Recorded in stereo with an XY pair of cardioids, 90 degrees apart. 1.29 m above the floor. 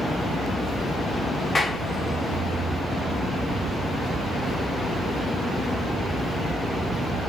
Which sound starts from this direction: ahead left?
A clap, at 1.6 s.